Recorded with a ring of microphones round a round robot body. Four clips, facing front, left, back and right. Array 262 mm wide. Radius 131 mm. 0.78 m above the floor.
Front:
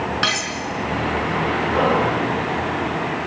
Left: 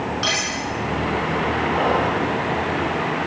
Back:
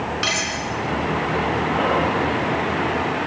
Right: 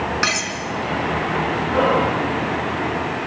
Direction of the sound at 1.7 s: 50° right.